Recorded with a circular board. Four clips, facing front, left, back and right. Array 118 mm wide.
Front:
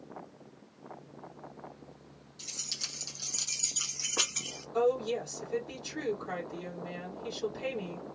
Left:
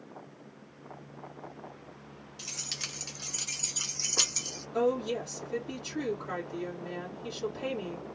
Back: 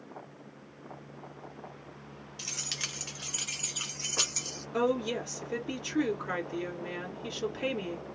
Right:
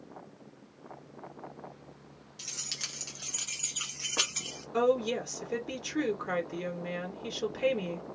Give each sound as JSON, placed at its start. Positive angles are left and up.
{"t": 2.4, "sound": "keys jangling", "azimuth_deg": 175, "distance_m": 1.6}
{"t": 4.7, "sound": "a woman speaking", "azimuth_deg": -135, "distance_m": 1.9}